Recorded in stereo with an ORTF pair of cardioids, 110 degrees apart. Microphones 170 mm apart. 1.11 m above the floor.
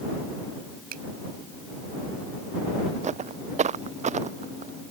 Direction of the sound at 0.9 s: 60° right.